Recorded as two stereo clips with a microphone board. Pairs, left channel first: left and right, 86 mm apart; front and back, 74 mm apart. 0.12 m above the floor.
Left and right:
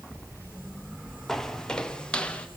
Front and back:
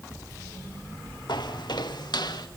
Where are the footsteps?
5° left, 2.5 m; by 2.5 s 15° left, 3 m.